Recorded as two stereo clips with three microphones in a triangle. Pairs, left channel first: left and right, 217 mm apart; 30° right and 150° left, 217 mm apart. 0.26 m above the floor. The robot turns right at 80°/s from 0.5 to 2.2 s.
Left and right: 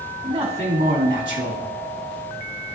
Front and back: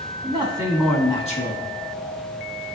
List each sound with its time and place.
0.2 s a man speaking: 145° right, 1.9 m; by 1.6 s 55° right, 1.9 m